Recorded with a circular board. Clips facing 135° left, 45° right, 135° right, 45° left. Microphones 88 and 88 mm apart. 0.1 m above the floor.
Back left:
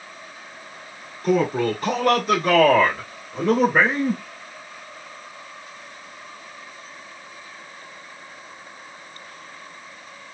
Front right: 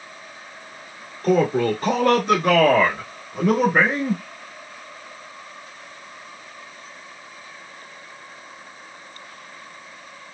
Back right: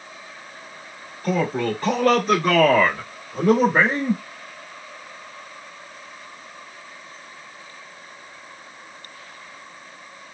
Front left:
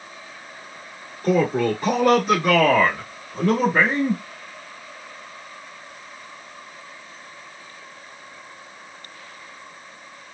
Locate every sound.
1.2 s a man speaking: 5° right, 1.5 m; by 4.2 s 140° right, 1.2 m